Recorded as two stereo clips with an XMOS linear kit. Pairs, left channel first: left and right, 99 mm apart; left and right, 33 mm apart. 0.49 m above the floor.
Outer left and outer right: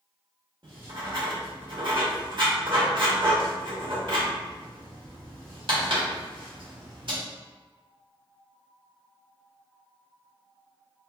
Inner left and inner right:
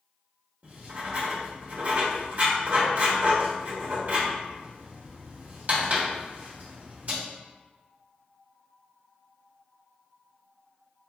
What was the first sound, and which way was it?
Writing, 55° right (ahead or behind).